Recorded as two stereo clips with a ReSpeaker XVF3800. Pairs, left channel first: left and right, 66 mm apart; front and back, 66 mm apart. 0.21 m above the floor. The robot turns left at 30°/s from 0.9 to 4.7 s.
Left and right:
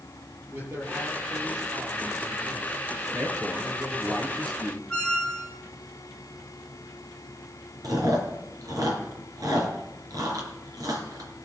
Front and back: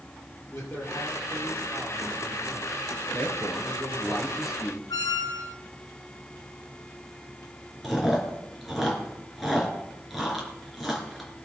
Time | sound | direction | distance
0.5 | a man speaking | 35° right | 6 m
3.1 | a man speaking | 55° right | 3.5 m
4.9 | a squeak | 15° left | 1.3 m
7.8 | chewing | 90° right | 3.5 m